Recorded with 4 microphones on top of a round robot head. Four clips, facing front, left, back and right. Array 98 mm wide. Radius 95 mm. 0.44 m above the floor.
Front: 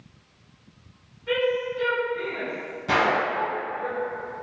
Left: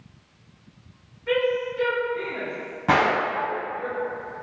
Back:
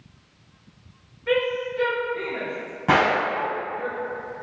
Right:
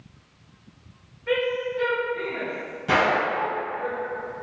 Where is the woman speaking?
Straight behind, 1.3 m.